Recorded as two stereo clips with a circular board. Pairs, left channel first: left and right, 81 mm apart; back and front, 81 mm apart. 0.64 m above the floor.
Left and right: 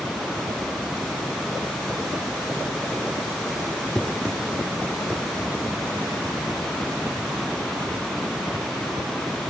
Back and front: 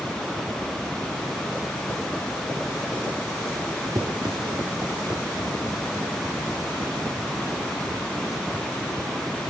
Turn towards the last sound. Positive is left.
turn(degrees=-40)